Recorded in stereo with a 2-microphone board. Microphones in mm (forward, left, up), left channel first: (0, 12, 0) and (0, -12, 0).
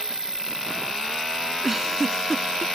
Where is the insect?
25° right (ahead or behind).